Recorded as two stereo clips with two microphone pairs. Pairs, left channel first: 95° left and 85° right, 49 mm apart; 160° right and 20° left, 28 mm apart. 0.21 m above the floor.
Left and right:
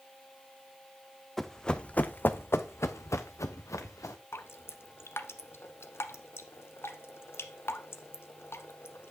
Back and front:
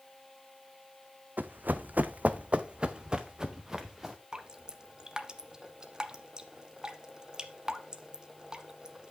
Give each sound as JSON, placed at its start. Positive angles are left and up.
{"t": 1.4, "sound": "running footsteps", "azimuth_deg": 10, "distance_m": 0.7}
{"t": 4.3, "sound": "dripping", "azimuth_deg": 75, "distance_m": 0.9}